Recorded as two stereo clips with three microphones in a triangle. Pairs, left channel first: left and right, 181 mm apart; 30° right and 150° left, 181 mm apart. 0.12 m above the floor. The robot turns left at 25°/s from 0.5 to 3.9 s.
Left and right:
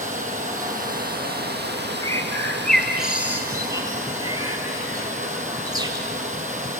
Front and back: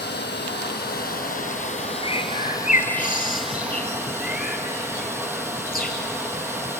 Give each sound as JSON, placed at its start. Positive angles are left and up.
{"t": 0.0, "sound": "running water", "azimuth_deg": -45, "distance_m": 2.0}
{"t": 2.0, "sound": "a bird", "azimuth_deg": 20, "distance_m": 2.5}